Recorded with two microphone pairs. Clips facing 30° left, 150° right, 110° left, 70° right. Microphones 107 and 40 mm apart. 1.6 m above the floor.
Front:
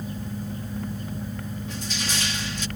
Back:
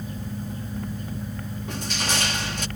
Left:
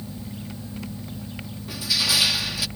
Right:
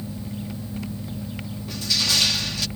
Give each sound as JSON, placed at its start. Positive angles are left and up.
{"t": 1.7, "sound": "crushing", "azimuth_deg": -170}